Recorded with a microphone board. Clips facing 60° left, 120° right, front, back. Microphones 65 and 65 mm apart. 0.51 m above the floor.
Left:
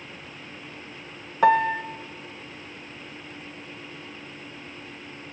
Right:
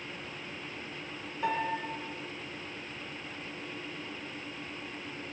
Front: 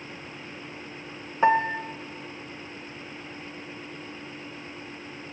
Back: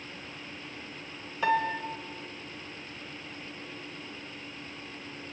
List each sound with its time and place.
1.4 s a piano: 60° left, 1.2 m